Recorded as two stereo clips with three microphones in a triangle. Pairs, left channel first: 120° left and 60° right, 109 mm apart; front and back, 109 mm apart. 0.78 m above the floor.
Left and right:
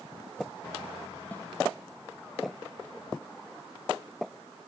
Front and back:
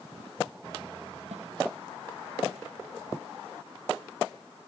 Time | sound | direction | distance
1.3 | a snare drum | 165° right | 5 m